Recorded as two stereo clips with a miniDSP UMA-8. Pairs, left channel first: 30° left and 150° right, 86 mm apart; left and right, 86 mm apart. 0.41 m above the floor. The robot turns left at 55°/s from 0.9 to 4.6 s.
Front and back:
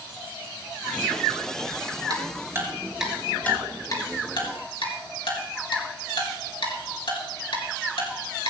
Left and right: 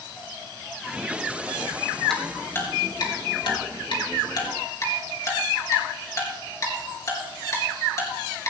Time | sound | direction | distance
2.1 | ticking | 175° left | 4 m